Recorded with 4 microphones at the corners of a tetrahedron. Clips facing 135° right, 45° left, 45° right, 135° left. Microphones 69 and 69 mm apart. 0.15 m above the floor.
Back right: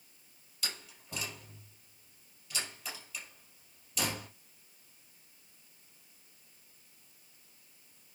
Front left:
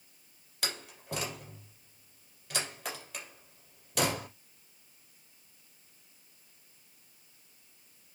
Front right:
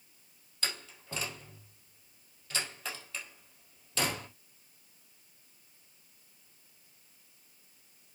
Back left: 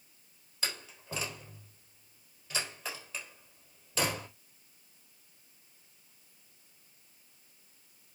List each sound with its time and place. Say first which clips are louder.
0.6 s a door slam: front left 5 dB, even; 55° left, 3.5 m